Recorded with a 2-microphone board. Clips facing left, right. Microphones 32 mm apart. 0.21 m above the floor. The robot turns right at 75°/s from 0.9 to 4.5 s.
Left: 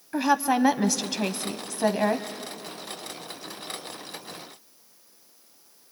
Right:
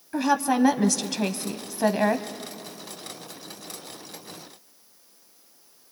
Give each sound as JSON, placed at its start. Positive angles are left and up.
{"t": 0.1, "sound": "a woman speaking", "side_deg": 10, "distance_m": 1.0}